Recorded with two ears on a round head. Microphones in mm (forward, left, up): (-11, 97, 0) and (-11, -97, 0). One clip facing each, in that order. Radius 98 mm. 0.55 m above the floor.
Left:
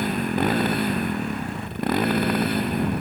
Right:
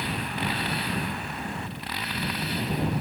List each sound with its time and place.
0.0 s a motorcycle: 45° left (ahead or behind); by 3.0 s 50° left (ahead or behind)